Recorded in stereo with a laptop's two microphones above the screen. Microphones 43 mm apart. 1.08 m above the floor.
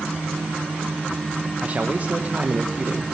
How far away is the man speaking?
About 0.7 m.